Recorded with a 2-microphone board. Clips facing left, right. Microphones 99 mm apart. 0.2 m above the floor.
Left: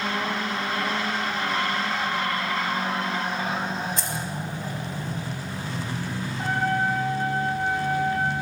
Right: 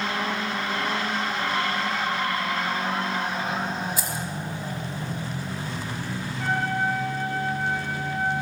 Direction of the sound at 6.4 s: 35° left (ahead or behind).